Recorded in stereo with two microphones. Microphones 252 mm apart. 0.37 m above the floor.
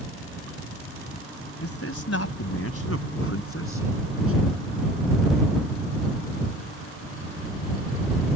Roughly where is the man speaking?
Left.